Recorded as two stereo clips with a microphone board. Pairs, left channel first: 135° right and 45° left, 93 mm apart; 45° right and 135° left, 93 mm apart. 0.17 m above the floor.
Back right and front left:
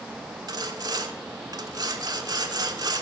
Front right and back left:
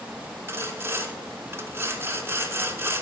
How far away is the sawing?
About 0.8 m.